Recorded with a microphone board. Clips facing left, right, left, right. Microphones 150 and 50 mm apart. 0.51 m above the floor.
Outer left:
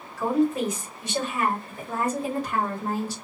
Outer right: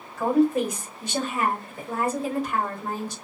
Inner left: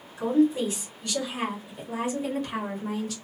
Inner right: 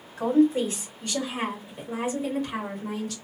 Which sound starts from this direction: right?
A woman speaking, at 0.2 s.